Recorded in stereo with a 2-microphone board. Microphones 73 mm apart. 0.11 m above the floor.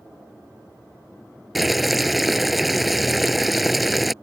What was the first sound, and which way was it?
Boiling, centre (ahead or behind).